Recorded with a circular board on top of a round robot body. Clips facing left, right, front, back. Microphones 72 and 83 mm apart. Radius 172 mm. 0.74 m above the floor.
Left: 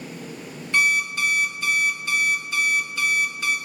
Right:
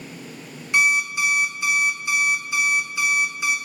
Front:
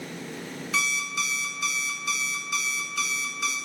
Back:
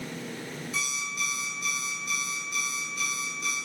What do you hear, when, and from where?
0.7 s an alarm clock: 15° right, 0.8 m